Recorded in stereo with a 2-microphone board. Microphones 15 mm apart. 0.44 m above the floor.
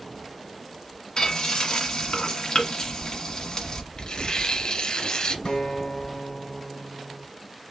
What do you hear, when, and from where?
1.2 s frying: 60° left (ahead or behind), 1.5 m
4.0 s tearing paper: 75° left (ahead or behind), 1.2 m
5.5 s a guitar: 70° left (ahead or behind), 1.2 m